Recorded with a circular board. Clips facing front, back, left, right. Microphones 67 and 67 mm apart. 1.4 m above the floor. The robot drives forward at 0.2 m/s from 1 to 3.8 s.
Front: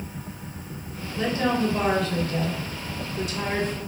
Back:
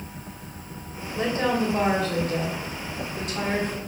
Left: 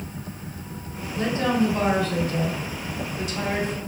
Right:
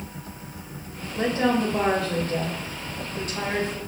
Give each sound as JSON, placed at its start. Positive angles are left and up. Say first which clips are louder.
{"t": 1.1, "sound": "a woman speaking", "louder": "even, even", "azimuth_deg": -125, "distance_m": 1.6}